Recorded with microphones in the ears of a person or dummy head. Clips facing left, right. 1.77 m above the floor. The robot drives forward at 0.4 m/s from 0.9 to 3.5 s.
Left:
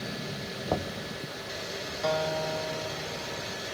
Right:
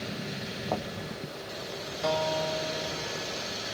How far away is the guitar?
About 2.5 m.